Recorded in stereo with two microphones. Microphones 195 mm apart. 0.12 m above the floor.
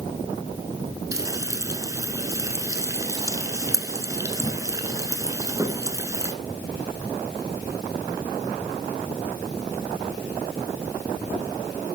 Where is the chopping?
I don't hear chopping.